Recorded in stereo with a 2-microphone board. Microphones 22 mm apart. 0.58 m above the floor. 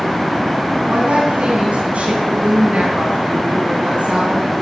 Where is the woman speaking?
70° right (ahead or behind), 4 m.